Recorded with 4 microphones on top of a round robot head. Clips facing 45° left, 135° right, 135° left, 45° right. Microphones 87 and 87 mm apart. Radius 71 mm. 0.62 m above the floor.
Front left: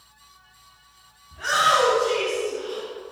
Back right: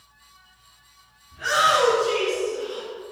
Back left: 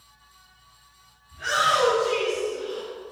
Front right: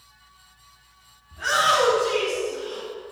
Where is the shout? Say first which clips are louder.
Even, front right 2 dB; 5° right, 6.5 m.